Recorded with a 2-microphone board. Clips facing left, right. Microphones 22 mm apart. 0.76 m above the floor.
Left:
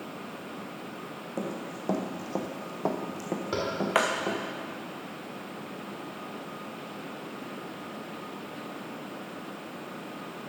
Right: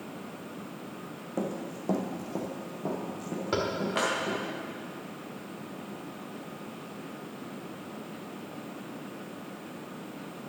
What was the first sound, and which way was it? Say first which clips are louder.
Running footsteps: right 2 dB; centre (ahead or behind).